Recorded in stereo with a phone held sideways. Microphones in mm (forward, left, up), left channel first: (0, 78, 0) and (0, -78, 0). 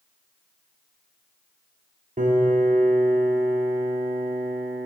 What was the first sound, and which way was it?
A piano, 55° right (ahead or behind).